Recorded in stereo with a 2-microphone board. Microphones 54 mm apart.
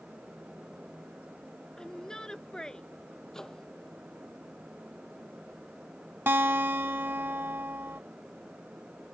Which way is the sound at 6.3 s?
45° right (ahead or behind).